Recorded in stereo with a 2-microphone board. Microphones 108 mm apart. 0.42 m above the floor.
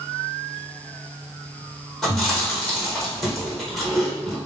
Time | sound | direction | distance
2.0 | chewing | 5° left (ahead or behind) | 1.5 m